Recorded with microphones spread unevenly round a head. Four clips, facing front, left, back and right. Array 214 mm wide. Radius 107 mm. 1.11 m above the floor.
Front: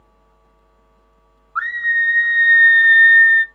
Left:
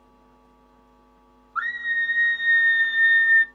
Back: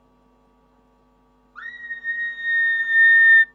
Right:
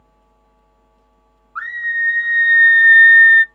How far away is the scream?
About 1.8 m.